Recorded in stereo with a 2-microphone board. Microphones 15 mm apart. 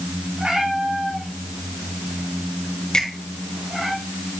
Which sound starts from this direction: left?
A finger snap, at 2.9 s.